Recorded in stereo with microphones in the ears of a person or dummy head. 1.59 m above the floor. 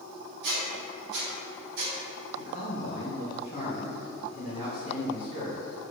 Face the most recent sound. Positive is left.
turn(degrees=35)  # may be behind; listen again after turning